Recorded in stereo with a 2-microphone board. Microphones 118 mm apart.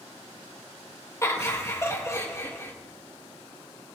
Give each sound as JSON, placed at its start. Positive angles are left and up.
{"t": 1.2, "sound": "laughter", "side_deg": 25, "distance_m": 2.0}